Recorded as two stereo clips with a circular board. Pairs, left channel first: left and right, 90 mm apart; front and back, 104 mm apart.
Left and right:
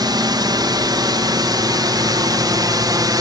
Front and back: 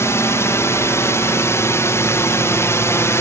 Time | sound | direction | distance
0.0 | a drone | 60° right | ?